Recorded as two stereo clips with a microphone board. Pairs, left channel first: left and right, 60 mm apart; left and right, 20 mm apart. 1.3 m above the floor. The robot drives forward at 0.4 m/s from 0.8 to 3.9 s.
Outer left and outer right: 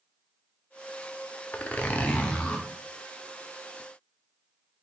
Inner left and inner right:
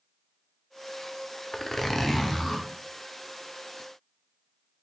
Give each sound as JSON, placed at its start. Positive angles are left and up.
{"t": 1.5, "sound": "a zipper", "side_deg": 25, "distance_m": 0.5}